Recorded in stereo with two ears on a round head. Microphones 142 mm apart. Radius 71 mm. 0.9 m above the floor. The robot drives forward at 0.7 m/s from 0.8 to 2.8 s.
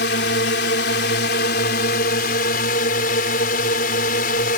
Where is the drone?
70° left (ahead or behind); by 4.6 s 55° left (ahead or behind).